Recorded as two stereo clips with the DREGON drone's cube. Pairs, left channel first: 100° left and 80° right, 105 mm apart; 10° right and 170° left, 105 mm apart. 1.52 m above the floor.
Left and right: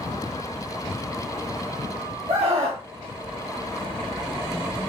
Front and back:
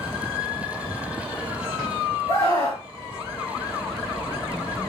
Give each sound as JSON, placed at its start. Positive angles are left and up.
{"t": 2.3, "sound": "a scream", "azimuth_deg": -75, "distance_m": 2.5}